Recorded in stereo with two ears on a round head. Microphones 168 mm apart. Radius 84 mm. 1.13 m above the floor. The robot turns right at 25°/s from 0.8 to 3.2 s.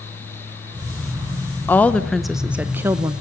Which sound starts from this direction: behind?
A woman speaking, at 1.7 s.